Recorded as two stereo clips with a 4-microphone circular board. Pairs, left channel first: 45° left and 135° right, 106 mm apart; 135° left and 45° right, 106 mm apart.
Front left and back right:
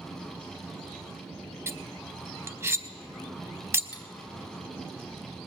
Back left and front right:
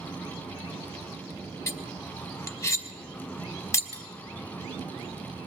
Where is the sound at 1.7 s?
Straight behind, 0.7 m.